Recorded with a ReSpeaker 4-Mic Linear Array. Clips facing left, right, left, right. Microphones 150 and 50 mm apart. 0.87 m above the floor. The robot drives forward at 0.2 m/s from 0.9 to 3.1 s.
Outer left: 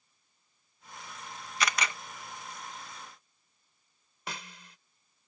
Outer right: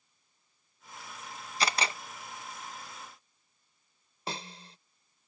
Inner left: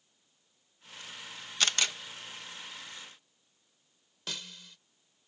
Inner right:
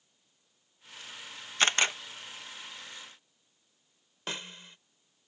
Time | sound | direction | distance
1.6 | a camera shutter | 30° right (ahead or behind) | ?
4.3 | a snare drum | 30° right (ahead or behind) | ?